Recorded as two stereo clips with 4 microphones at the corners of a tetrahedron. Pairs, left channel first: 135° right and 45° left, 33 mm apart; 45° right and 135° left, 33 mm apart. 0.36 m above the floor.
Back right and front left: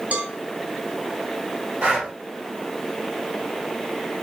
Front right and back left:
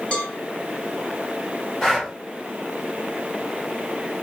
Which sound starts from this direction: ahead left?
Breathing, at 1.8 s.